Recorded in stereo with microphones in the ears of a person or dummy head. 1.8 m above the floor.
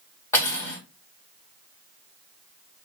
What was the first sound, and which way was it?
Cutlery clinking, 15° left (ahead or behind).